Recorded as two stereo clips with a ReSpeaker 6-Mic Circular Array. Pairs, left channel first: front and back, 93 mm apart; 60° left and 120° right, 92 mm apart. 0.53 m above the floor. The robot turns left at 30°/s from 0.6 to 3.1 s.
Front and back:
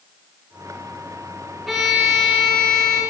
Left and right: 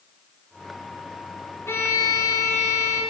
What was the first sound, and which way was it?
A violin, 95° left.